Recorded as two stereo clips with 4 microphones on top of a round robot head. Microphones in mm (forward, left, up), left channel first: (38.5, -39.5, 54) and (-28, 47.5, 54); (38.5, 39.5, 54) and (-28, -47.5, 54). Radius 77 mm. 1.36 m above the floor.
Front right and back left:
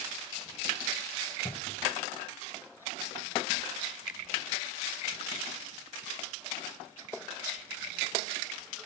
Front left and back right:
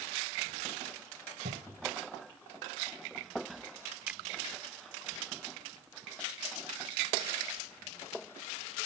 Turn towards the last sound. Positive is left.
turn(degrees=-50)